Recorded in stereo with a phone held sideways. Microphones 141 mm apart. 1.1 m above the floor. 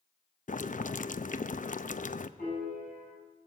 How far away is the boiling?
About 0.5 m.